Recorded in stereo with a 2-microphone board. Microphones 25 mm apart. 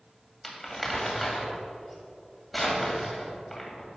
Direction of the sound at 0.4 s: 10° left (ahead or behind).